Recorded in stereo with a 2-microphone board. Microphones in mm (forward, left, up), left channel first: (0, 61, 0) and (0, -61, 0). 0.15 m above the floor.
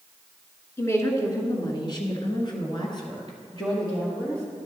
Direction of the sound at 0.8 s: 20° left (ahead or behind).